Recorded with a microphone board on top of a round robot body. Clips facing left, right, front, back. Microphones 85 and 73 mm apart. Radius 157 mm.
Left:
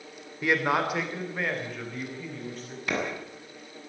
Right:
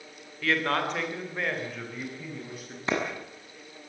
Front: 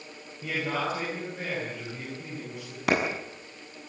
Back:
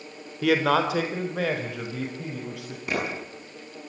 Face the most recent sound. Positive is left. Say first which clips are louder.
# right 2 dB, front 4 dB
turn(degrees=-25)